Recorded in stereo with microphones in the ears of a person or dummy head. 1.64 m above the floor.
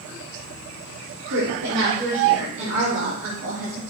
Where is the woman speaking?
70° right (ahead or behind), 3.5 m; by 3.8 s 85° right, 6 m.